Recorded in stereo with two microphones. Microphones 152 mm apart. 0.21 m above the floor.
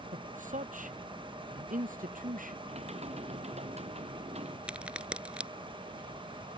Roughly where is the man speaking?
Right.